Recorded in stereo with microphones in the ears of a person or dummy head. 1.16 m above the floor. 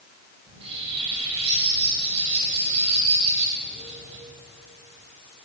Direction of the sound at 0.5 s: 30° right (ahead or behind).